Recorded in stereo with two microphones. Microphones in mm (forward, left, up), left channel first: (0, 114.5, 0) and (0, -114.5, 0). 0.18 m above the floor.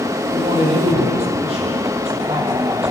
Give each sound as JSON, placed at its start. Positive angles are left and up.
{"t": 0.3, "sound": "a man speaking", "side_deg": -25, "distance_m": 8.0}